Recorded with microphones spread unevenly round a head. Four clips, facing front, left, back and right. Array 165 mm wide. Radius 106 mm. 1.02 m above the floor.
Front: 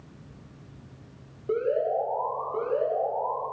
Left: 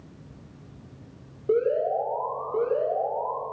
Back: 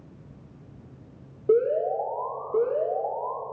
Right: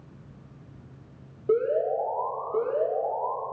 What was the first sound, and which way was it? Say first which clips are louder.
An alarm: left 1 dB, back 3 dB; 165° left.